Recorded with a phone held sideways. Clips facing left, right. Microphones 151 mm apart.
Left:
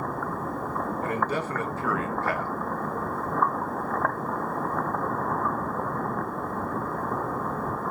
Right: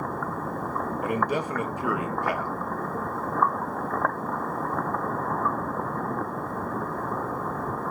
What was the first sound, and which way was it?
A man speaking, 15° right (ahead or behind).